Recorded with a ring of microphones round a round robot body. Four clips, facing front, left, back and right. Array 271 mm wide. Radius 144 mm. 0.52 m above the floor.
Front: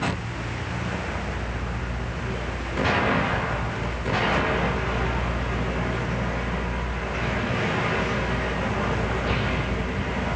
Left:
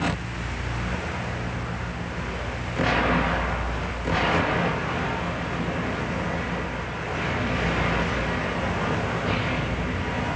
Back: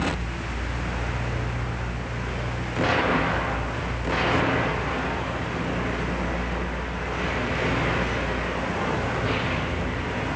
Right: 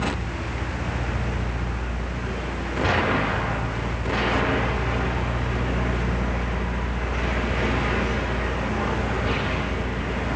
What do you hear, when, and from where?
Only background noise.